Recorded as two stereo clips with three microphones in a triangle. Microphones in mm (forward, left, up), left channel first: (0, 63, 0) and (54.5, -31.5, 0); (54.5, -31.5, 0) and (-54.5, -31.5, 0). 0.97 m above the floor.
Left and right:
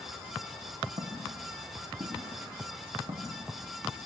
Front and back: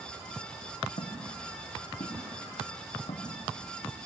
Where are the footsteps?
20° right, 5 m; by 4.0 s 30° right, 7 m.